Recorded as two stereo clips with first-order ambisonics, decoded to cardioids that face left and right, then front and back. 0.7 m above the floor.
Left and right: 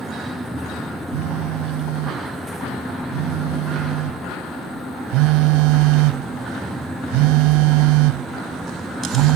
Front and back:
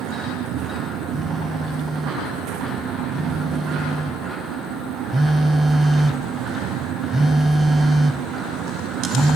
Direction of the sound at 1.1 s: 100° right.